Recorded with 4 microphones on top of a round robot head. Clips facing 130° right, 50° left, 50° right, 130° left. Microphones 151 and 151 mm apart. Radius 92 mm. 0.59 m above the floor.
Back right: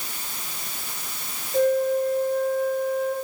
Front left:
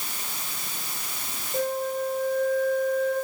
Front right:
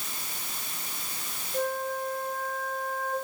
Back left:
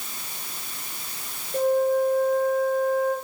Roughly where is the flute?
Behind left.